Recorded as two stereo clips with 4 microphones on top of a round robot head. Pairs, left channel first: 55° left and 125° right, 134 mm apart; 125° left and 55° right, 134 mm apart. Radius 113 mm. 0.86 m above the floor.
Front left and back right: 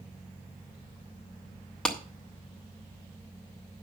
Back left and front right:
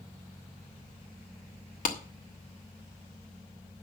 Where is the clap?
140° left, 1.7 m.